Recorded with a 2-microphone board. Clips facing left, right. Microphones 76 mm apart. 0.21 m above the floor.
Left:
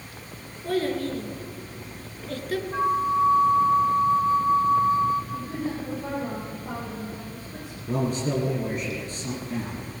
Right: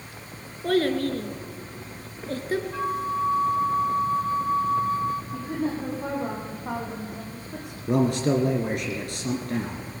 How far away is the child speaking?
About 2.5 m.